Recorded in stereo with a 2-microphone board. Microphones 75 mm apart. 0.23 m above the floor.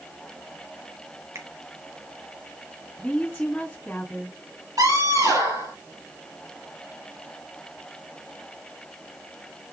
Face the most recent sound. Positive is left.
turn(degrees=-50)  # may be behind; listen again after turning